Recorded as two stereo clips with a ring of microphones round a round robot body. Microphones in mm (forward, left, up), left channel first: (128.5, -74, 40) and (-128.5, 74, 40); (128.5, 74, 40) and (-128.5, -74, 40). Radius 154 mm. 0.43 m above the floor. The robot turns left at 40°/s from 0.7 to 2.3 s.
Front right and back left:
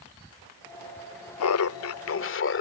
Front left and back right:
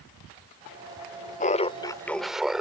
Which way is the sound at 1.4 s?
25° right.